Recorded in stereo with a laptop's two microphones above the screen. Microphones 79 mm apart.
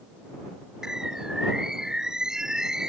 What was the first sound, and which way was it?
A bird, 5° right (ahead or behind).